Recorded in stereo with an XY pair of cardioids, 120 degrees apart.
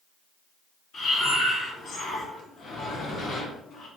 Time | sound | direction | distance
0.9 | breathing | 45° left | 0.8 m